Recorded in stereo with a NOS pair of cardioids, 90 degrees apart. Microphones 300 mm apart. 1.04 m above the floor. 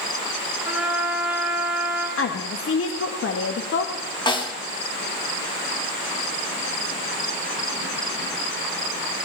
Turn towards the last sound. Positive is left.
turn(degrees=15)